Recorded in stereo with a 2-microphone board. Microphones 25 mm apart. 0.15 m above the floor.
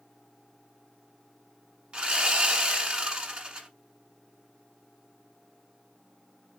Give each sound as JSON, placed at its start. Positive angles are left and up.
{"t": 1.9, "sound": "sawing", "side_deg": -40, "distance_m": 1.2}